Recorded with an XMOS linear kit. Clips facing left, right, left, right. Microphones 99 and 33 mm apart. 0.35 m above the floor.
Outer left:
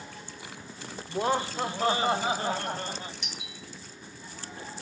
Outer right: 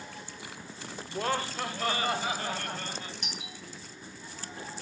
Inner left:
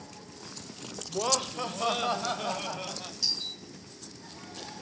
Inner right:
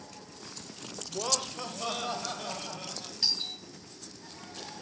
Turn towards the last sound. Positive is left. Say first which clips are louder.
# outer right 1 dB, inner right 2 dB
turn(degrees=-50)  # may be behind; listen again after turning